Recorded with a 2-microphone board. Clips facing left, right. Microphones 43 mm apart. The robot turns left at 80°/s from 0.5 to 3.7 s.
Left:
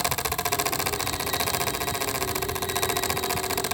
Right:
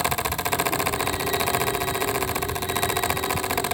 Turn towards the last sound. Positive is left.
No sound to turn to.